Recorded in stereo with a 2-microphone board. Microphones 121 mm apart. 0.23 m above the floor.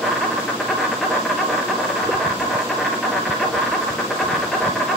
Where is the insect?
Centre (ahead or behind), 2.5 m.